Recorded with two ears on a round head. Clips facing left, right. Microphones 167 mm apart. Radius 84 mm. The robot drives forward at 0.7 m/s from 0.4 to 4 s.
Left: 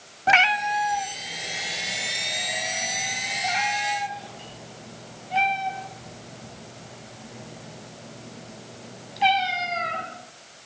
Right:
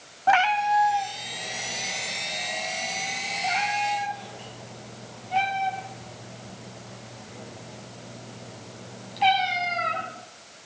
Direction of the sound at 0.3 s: 25° left (ahead or behind).